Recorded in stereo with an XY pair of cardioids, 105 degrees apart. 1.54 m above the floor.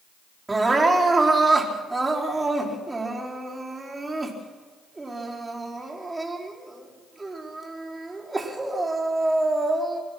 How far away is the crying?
About 4.5 m.